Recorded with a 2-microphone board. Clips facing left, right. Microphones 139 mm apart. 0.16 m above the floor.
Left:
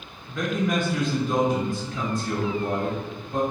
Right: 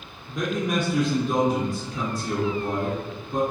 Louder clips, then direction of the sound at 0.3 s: Left 1 dB; 20° right (ahead or behind).